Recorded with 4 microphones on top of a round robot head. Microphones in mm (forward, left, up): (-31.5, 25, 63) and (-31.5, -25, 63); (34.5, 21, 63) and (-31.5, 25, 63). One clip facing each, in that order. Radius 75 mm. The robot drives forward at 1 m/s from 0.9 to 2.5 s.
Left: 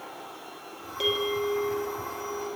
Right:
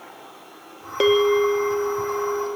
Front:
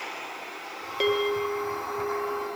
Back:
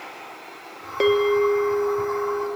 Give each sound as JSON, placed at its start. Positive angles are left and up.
{"t": 1.0, "sound": "a bell", "azimuth_deg": -120, "distance_m": 1.6}